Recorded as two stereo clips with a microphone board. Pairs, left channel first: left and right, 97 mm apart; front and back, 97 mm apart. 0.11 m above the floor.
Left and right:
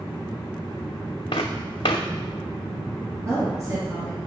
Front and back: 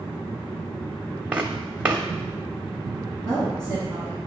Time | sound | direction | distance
1.3 | footsteps | 105° left | 0.5 m
3.2 | a woman speaking | 130° right | 1.5 m